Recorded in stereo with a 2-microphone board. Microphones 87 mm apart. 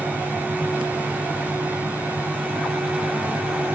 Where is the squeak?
No squeak in this recording.